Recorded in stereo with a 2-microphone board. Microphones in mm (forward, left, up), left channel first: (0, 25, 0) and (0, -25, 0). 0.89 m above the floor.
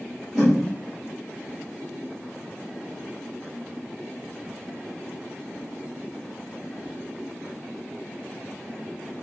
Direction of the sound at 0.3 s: 10° right (ahead or behind).